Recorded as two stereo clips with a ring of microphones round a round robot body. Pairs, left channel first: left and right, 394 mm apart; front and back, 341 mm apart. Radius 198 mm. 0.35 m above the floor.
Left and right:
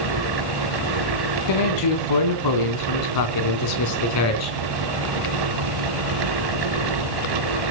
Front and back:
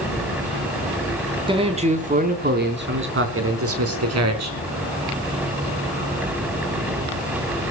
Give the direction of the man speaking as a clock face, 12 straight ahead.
8 o'clock.